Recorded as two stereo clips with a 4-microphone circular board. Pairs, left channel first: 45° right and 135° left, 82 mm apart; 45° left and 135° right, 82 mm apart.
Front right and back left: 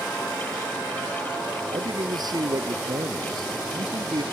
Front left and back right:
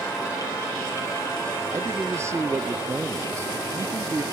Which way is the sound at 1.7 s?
170° left.